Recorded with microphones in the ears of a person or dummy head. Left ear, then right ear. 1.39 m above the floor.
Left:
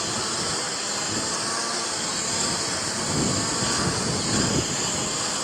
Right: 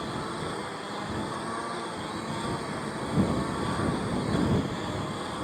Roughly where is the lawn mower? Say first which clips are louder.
Left 6 dB; left.